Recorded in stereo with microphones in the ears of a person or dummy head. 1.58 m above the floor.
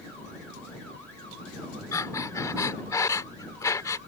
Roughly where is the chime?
I don't hear a chime.